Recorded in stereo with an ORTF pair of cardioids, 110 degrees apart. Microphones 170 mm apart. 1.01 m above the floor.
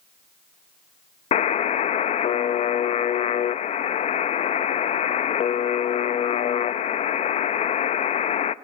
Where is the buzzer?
40° left, 0.6 m.